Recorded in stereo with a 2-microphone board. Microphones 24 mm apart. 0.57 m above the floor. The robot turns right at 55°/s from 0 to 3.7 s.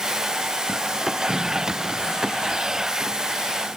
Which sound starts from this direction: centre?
A snare drum, at 1.3 s.